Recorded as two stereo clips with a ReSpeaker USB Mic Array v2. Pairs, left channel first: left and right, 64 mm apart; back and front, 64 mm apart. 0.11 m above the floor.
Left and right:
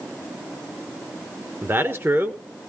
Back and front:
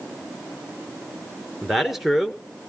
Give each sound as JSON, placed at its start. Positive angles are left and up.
{"t": 1.6, "sound": "a man speaking", "azimuth_deg": -85, "distance_m": 1.6}